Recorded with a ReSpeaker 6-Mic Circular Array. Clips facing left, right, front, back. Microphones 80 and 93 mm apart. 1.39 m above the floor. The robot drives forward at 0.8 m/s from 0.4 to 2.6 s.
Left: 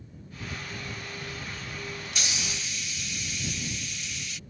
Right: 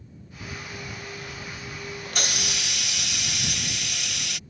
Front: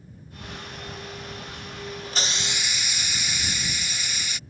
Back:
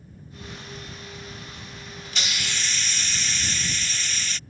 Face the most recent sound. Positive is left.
turn(degrees=-75)